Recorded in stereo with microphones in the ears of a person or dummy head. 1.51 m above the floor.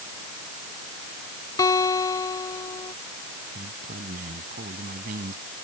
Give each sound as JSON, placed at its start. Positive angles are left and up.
{"t": 1.6, "sound": "a guitar", "side_deg": 20}
{"t": 3.5, "sound": "a man speaking", "side_deg": -50}